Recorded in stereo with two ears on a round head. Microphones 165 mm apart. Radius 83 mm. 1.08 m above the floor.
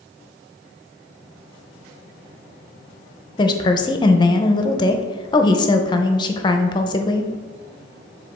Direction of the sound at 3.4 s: 25° left (ahead or behind).